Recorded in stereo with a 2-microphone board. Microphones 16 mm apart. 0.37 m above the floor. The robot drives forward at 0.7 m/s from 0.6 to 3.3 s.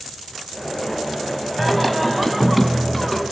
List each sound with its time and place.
1.6 s singing: centre (ahead or behind), 1.3 m